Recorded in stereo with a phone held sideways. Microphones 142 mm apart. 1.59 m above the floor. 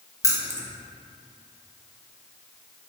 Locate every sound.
0.2 s keys jangling: 20° left (ahead or behind), 1.1 m